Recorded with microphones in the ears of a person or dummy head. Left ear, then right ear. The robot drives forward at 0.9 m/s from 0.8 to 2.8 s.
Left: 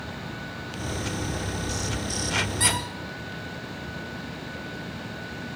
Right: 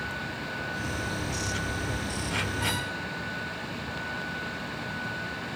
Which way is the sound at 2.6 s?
65° left (ahead or behind).